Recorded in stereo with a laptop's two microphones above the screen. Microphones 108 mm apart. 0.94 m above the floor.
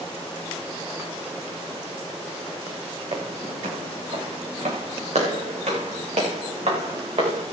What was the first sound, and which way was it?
Footsteps, 70° right (ahead or behind).